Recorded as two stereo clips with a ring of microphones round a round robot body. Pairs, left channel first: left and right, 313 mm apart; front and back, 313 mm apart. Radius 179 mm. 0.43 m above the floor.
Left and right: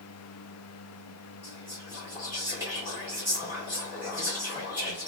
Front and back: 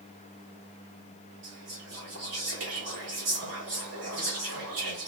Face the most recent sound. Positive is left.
turn(degrees=-170)